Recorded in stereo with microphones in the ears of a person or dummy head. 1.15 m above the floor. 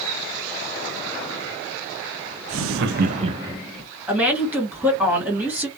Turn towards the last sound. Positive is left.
turn(degrees=-10)  # may be behind; listen again after turning